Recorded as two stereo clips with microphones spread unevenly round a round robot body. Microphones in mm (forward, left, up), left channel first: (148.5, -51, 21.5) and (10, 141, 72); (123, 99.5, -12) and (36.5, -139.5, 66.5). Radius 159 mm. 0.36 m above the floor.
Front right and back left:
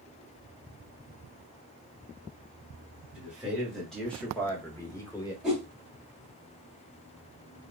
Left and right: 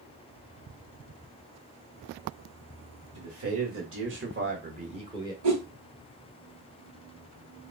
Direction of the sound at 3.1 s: 140° right.